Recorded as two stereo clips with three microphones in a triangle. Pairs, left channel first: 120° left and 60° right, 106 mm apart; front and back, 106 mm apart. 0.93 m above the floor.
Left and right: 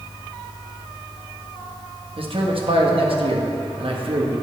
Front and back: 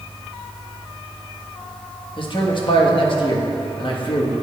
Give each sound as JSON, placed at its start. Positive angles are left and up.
{"t": 2.2, "sound": "a man speaking", "azimuth_deg": -35, "distance_m": 1.1}